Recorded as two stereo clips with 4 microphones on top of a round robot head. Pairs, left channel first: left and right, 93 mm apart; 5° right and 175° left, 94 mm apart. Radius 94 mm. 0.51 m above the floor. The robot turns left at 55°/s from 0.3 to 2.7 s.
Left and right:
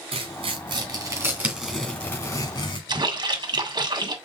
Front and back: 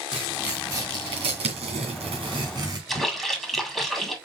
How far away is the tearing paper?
About 2.5 m.